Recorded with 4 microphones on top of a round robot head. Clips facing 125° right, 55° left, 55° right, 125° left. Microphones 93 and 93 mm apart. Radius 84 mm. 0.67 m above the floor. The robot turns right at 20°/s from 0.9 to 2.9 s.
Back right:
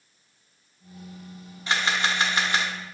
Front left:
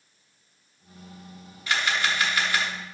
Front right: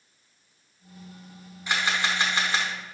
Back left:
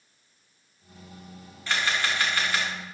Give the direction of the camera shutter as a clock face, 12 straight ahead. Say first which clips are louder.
Back right 1 dB, front right 1 dB; 4 o'clock.